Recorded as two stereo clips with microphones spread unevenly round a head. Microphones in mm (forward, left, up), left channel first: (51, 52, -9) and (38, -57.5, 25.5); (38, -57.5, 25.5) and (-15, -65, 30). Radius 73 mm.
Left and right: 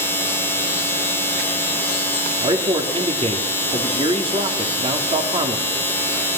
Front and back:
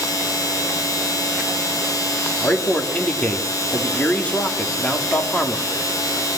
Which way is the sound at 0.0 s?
10° left.